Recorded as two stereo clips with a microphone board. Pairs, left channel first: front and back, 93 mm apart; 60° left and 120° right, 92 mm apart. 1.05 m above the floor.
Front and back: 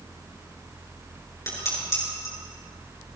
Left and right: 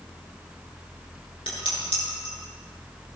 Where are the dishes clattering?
55° left, 9 m.